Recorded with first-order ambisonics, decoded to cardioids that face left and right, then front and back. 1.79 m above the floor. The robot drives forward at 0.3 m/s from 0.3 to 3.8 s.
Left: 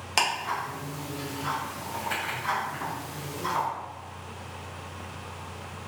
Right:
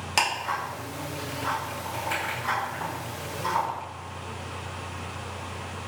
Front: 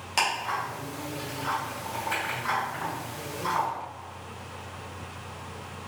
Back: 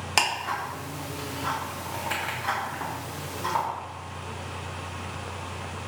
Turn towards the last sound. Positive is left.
turn(degrees=180)